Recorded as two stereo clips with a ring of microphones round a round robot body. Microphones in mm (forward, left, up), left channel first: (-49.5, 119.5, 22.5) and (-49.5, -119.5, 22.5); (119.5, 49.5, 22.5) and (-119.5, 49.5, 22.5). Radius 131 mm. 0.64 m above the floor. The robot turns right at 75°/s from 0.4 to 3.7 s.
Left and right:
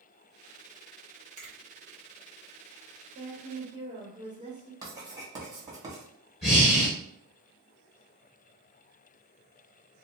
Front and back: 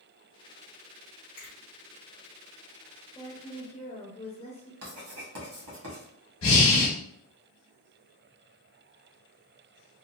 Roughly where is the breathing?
Ahead.